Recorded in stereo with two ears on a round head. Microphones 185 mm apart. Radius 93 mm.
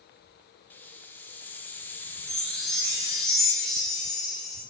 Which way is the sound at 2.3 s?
Centre (ahead or behind).